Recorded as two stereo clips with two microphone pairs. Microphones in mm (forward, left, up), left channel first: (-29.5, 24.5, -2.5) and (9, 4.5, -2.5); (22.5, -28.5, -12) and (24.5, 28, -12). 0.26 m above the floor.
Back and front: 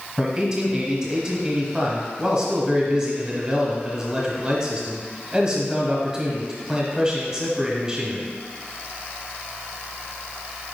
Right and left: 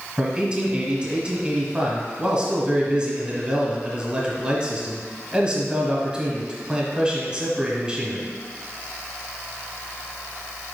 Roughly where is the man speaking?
Ahead left.